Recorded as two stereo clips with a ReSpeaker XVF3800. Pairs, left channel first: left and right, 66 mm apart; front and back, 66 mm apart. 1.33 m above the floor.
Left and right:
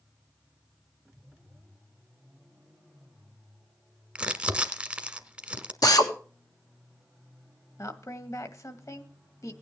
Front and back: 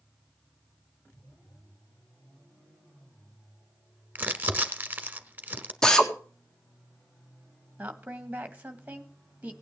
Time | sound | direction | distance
4.2 | crumpling | 150° right | 1.2 m
5.8 | a drill | 80° left | 1.7 m
7.8 | a woman speaking | 115° left | 1.8 m